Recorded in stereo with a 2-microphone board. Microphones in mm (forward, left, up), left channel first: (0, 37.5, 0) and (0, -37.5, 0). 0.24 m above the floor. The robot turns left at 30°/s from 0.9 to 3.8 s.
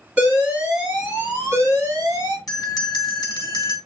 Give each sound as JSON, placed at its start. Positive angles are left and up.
{"t": 0.2, "sound": "an alarm", "azimuth_deg": -15, "distance_m": 3.0}
{"t": 2.5, "sound": "a bell", "azimuth_deg": 120, "distance_m": 1.1}